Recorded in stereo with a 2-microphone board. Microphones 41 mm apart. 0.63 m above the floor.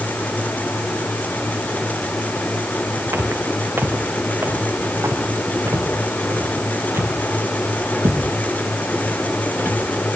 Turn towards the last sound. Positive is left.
turn(degrees=-65)  # may be behind; listen again after turning